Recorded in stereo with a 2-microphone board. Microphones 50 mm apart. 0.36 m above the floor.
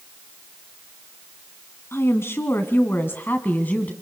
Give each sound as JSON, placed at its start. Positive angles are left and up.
{"t": 1.9, "sound": "a woman speaking", "side_deg": 60, "distance_m": 2.5}